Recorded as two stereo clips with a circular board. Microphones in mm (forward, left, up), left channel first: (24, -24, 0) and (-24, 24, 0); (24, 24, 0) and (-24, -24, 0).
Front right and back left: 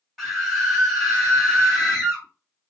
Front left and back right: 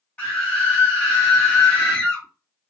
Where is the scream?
40° left, 1.6 m.